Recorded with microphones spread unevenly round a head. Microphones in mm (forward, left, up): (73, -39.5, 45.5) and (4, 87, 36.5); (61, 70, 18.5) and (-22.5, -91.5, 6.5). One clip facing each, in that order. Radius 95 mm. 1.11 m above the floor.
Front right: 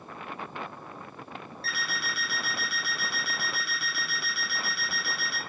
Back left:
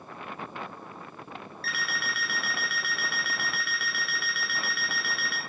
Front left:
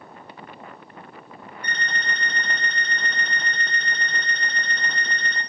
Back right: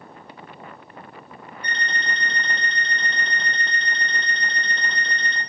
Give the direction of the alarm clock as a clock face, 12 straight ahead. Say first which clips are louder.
Back left 1 dB, back right 1 dB; 9 o'clock.